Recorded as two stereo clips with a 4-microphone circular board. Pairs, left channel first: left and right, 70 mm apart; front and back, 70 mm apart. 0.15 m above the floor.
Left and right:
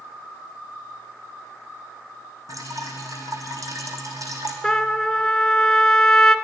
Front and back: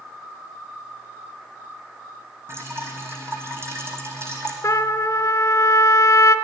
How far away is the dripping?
About 1.9 m.